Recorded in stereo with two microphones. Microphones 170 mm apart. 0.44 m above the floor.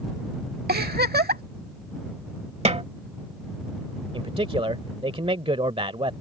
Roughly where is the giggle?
Right.